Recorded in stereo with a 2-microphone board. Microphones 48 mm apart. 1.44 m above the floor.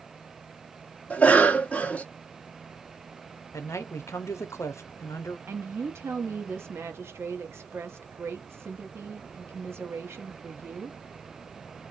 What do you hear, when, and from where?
1.1 s a cough: 25° left (ahead or behind), 0.7 m
3.5 s a man speaking: 80° left, 0.7 m
5.5 s a woman speaking: 60° right (ahead or behind), 0.9 m